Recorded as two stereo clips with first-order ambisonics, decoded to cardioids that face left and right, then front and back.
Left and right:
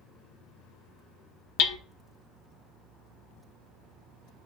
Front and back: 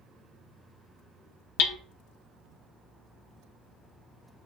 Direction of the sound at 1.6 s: 45° left.